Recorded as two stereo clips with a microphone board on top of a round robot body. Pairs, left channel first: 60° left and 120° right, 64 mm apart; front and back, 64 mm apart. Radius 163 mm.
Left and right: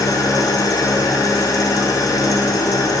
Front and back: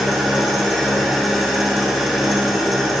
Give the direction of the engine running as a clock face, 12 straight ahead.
9 o'clock.